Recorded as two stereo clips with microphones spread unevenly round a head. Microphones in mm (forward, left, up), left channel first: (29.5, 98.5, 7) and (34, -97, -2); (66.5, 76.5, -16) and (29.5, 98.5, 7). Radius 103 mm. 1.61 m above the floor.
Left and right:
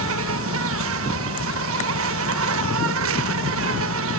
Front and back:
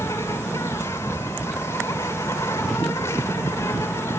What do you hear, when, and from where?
0.0 s an insect: 100° right, 1.2 m